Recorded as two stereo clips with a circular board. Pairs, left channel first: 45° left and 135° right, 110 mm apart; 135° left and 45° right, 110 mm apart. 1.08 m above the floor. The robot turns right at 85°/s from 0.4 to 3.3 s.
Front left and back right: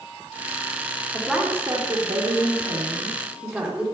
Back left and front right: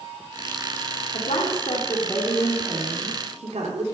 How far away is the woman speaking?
About 2.5 m.